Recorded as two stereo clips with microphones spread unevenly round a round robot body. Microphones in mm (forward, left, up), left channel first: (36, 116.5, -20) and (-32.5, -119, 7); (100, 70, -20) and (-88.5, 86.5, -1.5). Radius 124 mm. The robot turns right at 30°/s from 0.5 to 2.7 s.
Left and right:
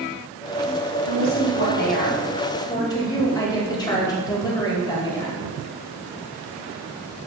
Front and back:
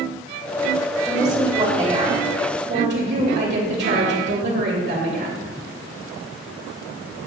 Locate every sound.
1.1 s a woman speaking: 95° left, 2.5 m; by 5.4 s 145° left, 2.5 m